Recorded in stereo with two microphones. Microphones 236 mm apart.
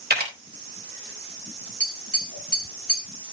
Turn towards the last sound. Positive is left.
turn(degrees=-30)  # may be behind; listen again after turning